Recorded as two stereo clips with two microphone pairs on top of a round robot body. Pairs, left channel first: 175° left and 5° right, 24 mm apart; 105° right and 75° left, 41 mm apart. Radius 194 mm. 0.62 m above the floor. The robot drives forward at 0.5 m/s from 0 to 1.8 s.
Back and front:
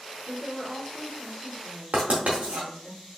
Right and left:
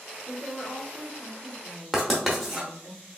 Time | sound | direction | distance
0.3 | a woman speaking | 110° right | 1.9 m
1.9 | writing | 15° right | 0.6 m